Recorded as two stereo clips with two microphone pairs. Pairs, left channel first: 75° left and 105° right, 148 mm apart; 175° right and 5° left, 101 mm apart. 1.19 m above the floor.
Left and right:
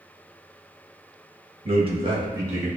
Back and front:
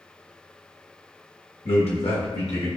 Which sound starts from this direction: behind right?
A man speaking, at 1.6 s.